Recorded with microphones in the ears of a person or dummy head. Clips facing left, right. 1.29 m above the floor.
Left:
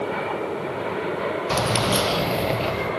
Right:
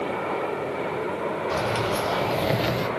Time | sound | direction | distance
1.5 | keys jangling | 80° left | 0.9 m